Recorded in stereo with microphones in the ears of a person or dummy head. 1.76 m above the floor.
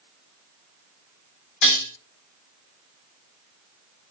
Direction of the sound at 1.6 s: 65° left (ahead or behind).